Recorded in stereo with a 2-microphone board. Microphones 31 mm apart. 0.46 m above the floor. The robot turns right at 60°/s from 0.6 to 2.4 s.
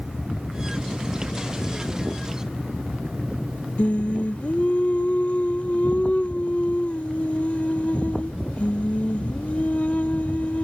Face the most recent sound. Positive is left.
turn(degrees=55)  # may be behind; listen again after turning